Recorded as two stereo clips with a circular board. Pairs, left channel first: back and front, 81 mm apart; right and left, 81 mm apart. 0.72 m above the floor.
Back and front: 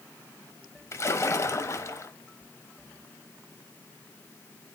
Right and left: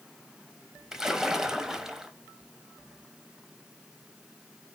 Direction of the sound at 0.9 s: 170° left.